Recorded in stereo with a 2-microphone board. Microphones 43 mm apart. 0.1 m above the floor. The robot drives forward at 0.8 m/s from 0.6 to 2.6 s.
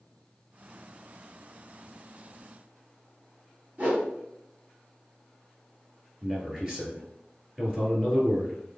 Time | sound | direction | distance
3.8 | a whoosh | 35° right (ahead or behind) | 1.8 m
6.2 | a man speaking | 15° right (ahead or behind) | 2.0 m